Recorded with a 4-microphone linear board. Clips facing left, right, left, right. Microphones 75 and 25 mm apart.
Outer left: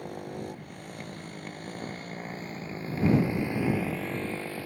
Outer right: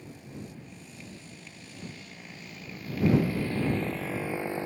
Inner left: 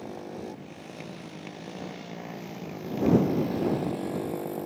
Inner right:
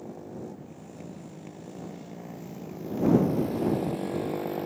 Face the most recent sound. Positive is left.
turn(degrees=-25)  # may be behind; listen again after turning